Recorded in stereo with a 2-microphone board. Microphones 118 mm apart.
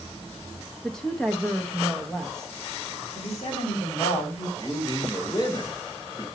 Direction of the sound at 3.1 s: 70° left (ahead or behind).